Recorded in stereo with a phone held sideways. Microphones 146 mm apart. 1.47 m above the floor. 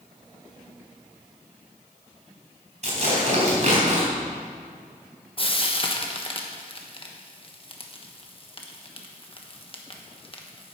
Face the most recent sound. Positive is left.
turn(degrees=40)  # may be behind; listen again after turning